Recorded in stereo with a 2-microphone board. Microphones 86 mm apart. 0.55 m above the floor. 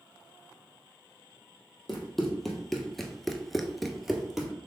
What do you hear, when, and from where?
1.9 s running footsteps: 5° left (ahead or behind), 1.4 m; by 4.5 s 5° right (ahead or behind), 1.0 m